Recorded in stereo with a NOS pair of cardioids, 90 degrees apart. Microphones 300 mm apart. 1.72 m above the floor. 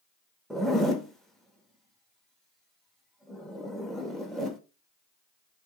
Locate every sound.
0.5 s a zipper: straight ahead, 0.5 m